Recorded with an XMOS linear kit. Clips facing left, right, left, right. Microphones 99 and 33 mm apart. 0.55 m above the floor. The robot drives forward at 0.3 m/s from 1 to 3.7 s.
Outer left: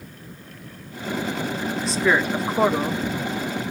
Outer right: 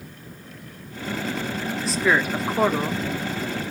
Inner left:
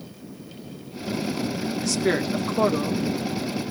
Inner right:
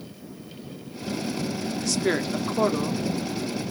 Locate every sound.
1.8 s a woman speaking: centre (ahead or behind), 1.2 m